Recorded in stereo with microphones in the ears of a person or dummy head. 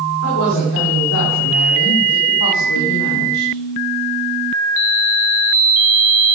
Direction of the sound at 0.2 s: 85° left.